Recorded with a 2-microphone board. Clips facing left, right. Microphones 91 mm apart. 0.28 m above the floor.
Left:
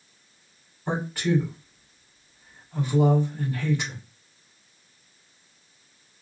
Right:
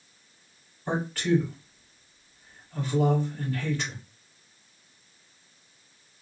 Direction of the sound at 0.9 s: 15° left (ahead or behind).